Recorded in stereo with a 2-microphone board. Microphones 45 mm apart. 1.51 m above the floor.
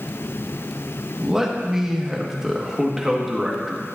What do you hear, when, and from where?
1.2 s a man speaking: 10° right (ahead or behind), 1.5 m